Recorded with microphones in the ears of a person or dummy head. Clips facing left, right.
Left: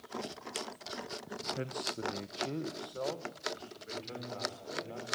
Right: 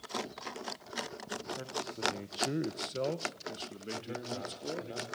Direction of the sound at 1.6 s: 40° left (ahead or behind).